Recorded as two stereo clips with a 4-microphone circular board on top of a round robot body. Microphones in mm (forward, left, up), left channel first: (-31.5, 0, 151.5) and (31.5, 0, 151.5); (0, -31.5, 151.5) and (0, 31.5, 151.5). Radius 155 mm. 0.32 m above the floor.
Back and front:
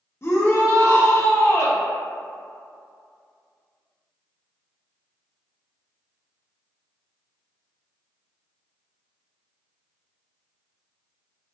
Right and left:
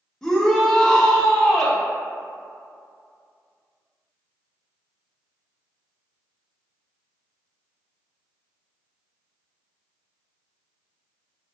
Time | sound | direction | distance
0.2 | a shout | 165° right | 1.1 m